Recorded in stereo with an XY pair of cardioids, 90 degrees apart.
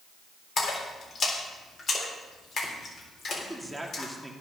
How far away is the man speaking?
About 2.5 m.